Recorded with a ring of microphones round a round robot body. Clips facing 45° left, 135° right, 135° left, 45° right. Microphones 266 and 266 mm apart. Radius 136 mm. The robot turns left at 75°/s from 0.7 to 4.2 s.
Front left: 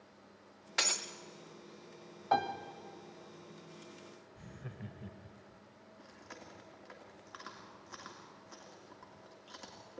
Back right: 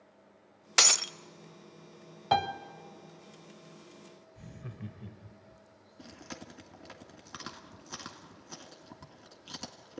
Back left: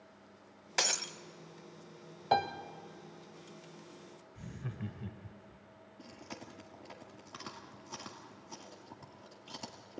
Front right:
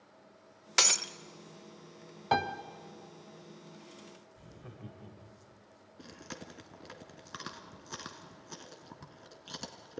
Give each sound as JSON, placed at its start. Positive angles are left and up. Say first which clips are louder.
{"t": 0.8, "sound": "breaking glass", "louder": "back right 5 dB, front right 1 dB", "azimuth_deg": -115, "distance_m": 0.5}
{"t": 2.3, "sound": "a piano", "louder": "back right 3 dB, even", "azimuth_deg": -125, "distance_m": 1.1}
{"t": 4.3, "sound": "laughter", "louder": "back right 4 dB, back left 10 dB", "azimuth_deg": 150, "distance_m": 1.1}
{"t": 6.0, "sound": "chewing", "louder": "back right 8 dB, front right 2 dB", "azimuth_deg": -100, "distance_m": 1.9}